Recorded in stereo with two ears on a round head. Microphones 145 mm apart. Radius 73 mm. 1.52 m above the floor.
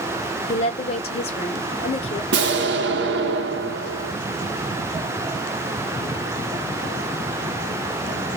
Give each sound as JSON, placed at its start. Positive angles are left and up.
{"t": 0.5, "sound": "a woman speaking", "side_deg": 40, "distance_m": 0.8}
{"t": 2.3, "sound": "an explosion", "side_deg": -75, "distance_m": 0.7}